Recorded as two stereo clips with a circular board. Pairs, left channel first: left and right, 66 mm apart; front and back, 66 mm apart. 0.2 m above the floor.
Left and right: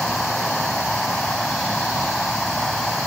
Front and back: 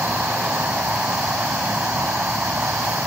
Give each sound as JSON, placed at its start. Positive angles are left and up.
{"t": 0.0, "sound": "an insect", "azimuth_deg": 170, "distance_m": 0.9}